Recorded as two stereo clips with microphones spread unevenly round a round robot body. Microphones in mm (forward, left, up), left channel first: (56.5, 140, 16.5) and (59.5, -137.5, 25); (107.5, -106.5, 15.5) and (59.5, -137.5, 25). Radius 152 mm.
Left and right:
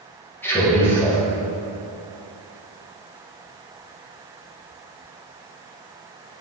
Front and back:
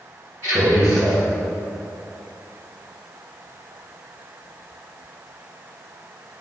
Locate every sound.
0.4 s a man speaking: 175° left, 2.0 m